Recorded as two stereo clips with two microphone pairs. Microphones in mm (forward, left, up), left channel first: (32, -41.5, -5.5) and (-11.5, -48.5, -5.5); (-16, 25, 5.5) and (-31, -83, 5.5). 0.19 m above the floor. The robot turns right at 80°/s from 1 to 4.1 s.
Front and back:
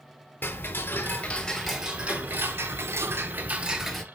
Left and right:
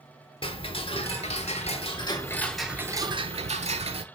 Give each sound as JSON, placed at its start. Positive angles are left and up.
{"t": 0.4, "sound": "ticking", "azimuth_deg": 45, "distance_m": 0.5}